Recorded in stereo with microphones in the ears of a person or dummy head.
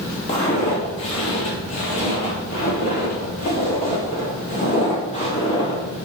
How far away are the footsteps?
About 2.5 m.